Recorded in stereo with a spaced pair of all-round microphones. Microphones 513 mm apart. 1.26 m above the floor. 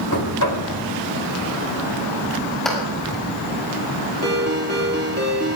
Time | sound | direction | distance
0.1 | knocking | 40° left (ahead or behind) | 3.5 m
2.6 | a clap | centre (ahead or behind) | 7 m
4.2 | a ringtone | 30° right (ahead or behind) | 2.5 m